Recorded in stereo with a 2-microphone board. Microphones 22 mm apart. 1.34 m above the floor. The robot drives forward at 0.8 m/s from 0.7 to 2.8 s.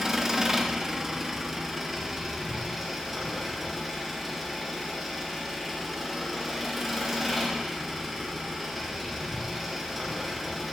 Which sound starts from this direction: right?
An engine running, at 0.0 s.